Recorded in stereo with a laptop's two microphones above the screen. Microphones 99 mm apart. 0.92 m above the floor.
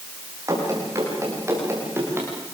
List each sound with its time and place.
0.5 s running footsteps: 35° right (ahead or behind), 8.5 m; by 2.3 s 25° right (ahead or behind), 8 m